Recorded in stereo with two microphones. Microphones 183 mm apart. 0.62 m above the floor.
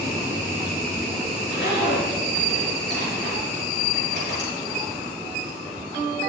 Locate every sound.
1.4 s a zipper: 70° left (ahead or behind), 5 m